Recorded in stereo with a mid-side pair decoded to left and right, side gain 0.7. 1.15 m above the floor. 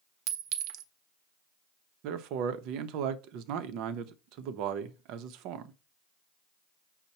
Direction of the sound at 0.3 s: 65° right.